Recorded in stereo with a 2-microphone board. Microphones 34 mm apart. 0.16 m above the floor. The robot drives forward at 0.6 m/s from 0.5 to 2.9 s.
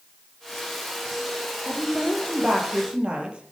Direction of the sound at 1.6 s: 25° right (ahead or behind).